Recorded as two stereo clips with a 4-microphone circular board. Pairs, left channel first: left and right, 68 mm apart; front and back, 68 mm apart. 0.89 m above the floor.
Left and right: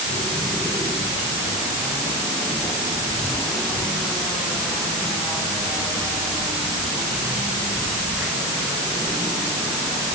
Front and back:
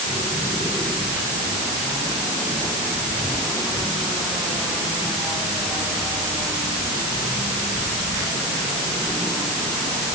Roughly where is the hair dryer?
No hair dryer in this recording.